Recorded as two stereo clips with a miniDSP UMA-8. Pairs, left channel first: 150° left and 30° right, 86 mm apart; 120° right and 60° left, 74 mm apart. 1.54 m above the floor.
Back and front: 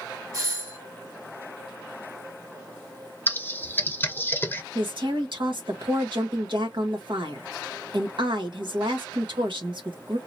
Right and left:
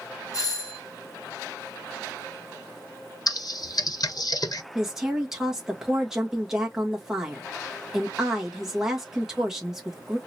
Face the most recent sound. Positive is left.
turn(degrees=-20)